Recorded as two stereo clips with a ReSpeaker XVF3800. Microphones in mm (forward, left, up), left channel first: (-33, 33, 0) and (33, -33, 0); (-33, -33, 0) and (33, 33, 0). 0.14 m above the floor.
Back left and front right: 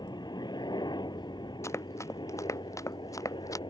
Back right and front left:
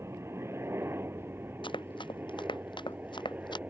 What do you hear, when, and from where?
0.0 s a helicopter: 100° left; by 3.7 s 115° left
1.6 s running footsteps: 165° right; by 3.6 s 170° right